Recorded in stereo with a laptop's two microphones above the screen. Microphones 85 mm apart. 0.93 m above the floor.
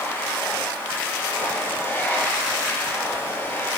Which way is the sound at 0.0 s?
25° left (ahead or behind).